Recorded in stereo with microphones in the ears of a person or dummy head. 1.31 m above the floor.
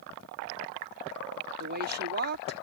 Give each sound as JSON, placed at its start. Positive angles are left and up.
{"t": 1.6, "sound": "a woman speaking", "side_deg": -50}